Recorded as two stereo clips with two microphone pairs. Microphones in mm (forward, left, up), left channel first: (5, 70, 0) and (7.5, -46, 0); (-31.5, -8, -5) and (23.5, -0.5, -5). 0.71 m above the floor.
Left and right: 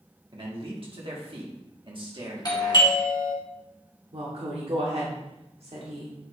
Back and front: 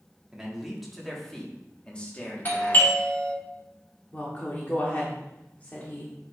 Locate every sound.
0.3 s a man speaking: 70° right, 1.9 m; by 3.0 s 130° right, 1.8 m
2.5 s a doorbell: 140° left, 2.0 m
4.1 s a woman speaking: 115° right, 1.3 m